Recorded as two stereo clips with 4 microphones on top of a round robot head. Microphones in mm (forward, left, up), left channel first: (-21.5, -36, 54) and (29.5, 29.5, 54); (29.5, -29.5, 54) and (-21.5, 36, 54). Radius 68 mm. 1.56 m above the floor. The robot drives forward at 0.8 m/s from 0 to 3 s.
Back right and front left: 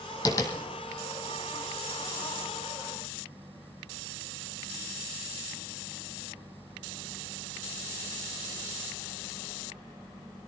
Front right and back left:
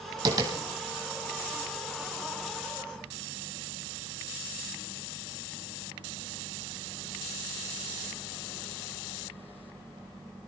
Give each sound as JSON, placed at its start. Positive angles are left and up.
{"t": 0.2, "sound": "tapping", "azimuth_deg": 180, "distance_m": 3.0}